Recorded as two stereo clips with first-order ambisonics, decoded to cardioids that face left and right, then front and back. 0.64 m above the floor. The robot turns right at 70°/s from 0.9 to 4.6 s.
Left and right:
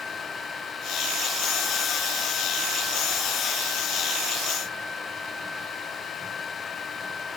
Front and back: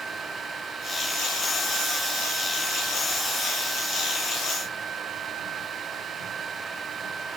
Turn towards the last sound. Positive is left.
No sound to turn to.